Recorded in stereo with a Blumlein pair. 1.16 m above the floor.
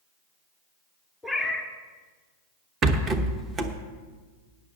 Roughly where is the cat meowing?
Ahead.